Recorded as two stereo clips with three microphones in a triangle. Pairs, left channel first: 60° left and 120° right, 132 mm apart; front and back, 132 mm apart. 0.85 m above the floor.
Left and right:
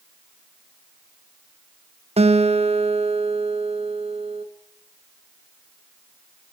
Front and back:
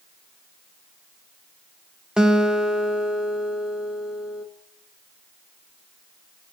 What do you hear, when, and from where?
2.2 s a guitar: 95° right, 0.9 m